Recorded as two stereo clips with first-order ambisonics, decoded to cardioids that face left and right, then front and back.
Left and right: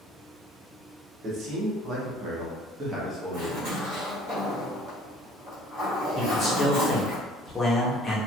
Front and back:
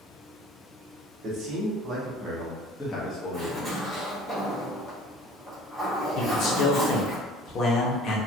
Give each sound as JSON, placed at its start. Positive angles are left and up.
{"t": 1.2, "sound": "a man speaking", "azimuth_deg": -130, "distance_m": 1.1}
{"t": 3.3, "sound": "a zipper", "azimuth_deg": -75, "distance_m": 1.4}
{"t": 6.2, "sound": "a man speaking", "azimuth_deg": 20, "distance_m": 0.7}